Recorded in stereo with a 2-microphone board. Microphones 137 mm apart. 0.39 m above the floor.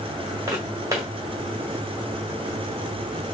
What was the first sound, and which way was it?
Footsteps, 25° right (ahead or behind).